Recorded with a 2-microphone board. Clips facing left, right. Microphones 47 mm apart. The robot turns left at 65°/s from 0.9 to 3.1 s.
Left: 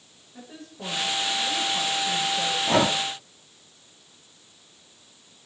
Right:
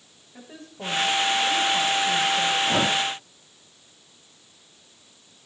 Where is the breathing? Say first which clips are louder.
Left 1 dB; 60° left (ahead or behind), 1.4 m; by 3.0 s 65° left (ahead or behind), 1.4 m.